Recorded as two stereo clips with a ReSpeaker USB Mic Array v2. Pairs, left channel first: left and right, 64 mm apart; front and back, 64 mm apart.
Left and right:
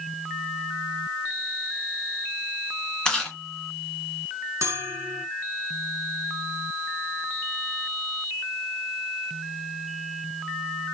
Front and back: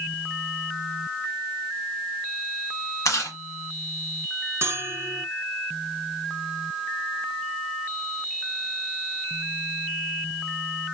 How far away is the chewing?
About 1.2 m.